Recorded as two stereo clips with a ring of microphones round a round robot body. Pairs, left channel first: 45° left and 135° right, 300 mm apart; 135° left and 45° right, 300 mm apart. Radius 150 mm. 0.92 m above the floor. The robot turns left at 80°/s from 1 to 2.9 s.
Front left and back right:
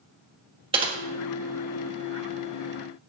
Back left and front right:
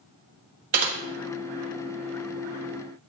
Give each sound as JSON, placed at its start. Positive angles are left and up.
{"t": 0.7, "sound": "typing on a keyboard", "azimuth_deg": -65, "distance_m": 1.5}